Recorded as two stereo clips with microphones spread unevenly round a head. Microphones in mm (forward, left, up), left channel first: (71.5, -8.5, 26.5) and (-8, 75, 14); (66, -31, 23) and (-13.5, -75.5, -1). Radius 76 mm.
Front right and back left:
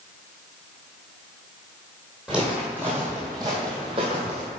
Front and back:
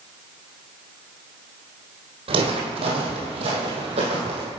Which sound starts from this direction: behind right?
Footsteps, at 2.3 s.